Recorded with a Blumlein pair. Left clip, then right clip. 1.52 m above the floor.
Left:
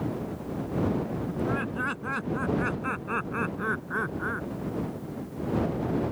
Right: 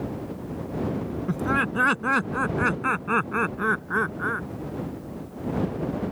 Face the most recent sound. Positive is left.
turn(degrees=-15)